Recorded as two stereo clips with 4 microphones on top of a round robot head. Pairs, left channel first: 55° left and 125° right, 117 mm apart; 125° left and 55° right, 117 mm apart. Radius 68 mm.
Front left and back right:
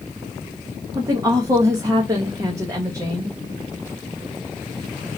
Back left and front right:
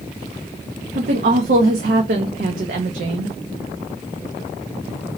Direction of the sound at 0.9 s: 60° right.